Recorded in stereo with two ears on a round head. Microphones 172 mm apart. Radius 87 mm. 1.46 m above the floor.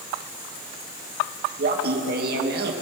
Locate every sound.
1.6 s laughter: 55° right (ahead or behind), 2 m